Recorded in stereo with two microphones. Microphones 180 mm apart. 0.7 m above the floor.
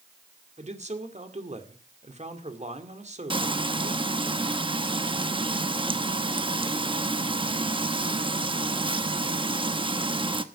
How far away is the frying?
About 1.0 m.